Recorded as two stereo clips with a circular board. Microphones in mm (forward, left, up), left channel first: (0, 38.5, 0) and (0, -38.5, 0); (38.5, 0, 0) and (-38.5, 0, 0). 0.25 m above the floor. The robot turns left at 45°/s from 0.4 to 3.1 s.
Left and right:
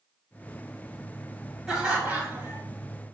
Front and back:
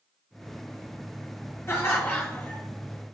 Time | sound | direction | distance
1.7 | laughter | 15° right | 1.9 m